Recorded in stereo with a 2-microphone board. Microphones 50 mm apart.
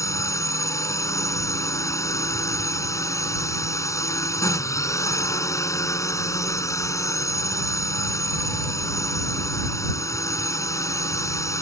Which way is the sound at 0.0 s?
75° left (ahead or behind).